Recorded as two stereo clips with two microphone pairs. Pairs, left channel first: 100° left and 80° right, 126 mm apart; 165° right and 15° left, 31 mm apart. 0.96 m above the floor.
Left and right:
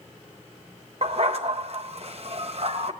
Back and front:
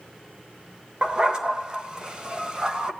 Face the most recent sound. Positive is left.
turn(degrees=-50)